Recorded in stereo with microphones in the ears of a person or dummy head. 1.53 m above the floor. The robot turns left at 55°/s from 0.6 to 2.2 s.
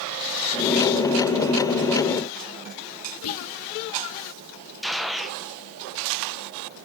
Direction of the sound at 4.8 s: 5° left (ahead or behind).